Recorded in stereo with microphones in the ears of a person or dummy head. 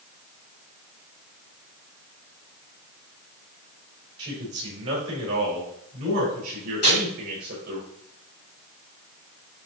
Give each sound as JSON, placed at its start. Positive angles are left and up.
{"t": 4.2, "sound": "a man speaking", "side_deg": -25, "distance_m": 3.5}
{"t": 6.8, "sound": "tearing paper", "side_deg": 50, "distance_m": 3.0}